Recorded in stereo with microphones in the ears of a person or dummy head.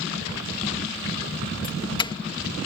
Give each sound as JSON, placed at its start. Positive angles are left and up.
{"t": 1.6, "sound": "a doorbell", "side_deg": 25}